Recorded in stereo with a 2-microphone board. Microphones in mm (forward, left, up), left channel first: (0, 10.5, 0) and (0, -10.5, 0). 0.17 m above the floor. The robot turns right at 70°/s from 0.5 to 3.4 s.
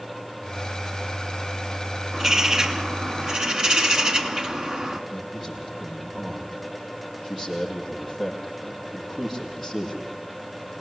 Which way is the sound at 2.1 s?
160° right.